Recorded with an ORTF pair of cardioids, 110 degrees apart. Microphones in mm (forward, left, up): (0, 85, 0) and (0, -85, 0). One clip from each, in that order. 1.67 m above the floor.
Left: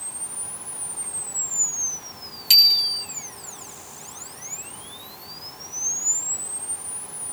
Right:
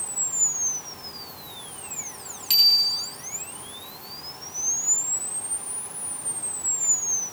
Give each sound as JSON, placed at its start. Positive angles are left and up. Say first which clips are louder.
{"t": 2.5, "sound": "a bicycle bell", "louder": "left 3 dB", "azimuth_deg": 35, "distance_m": 4.0}